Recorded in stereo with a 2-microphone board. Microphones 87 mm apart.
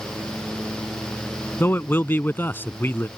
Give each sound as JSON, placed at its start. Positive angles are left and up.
{"t": 1.6, "sound": "a man speaking", "side_deg": 25}